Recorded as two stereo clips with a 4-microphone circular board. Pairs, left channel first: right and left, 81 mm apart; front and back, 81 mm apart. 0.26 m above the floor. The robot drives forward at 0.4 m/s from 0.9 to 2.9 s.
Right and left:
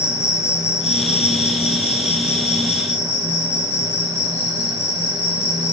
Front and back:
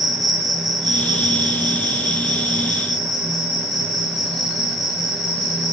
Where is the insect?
145° right, 2.5 m; by 5.7 s 155° right, 3 m.